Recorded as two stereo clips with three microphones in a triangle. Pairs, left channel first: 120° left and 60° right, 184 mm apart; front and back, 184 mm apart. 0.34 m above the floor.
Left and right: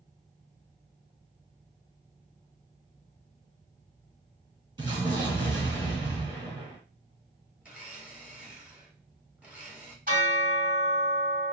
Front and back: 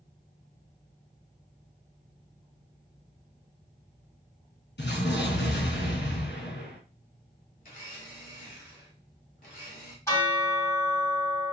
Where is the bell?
70° right, 2 m.